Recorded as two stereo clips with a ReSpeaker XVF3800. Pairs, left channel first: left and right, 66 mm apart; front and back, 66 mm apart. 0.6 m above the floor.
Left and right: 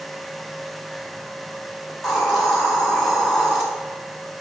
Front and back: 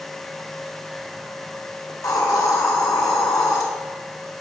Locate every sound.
1.9 s a hiss: straight ahead, 2.5 m